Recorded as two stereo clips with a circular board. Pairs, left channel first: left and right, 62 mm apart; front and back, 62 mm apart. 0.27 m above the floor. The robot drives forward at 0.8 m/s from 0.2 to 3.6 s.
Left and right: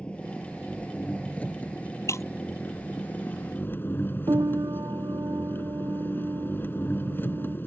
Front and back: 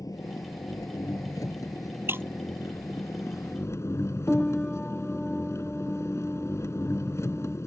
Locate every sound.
0.0 s an engine running: 20° left; by 7.7 s 35° left
2.1 s breaking glass: 130° left
4.3 s a piano: 70° right